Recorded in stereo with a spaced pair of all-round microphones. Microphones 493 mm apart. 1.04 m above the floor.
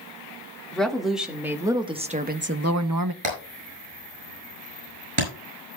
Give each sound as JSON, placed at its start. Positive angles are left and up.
{"t": 0.7, "sound": "a woman speaking", "side_deg": 0, "distance_m": 2.0}
{"t": 3.2, "sound": "hammering", "side_deg": -70, "distance_m": 7.5}